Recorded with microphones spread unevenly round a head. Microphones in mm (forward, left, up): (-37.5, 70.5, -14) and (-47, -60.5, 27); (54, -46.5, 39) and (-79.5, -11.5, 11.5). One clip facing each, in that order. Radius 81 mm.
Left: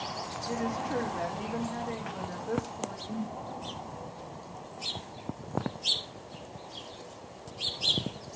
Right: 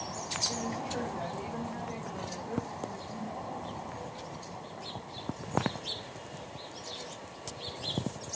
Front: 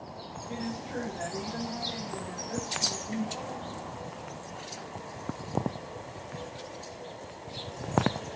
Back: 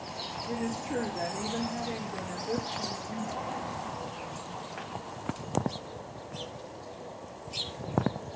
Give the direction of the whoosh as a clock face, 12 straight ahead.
10 o'clock.